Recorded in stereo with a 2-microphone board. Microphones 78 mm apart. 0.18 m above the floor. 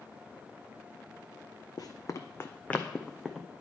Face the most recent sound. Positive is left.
turn(degrees=-5)  # may be behind; listen again after turning